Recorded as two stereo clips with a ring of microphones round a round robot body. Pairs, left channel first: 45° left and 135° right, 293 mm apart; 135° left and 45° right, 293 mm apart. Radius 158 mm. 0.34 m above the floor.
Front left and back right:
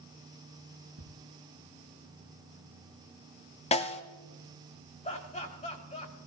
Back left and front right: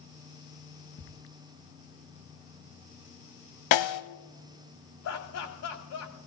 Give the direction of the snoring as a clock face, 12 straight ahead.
I don't hear snoring.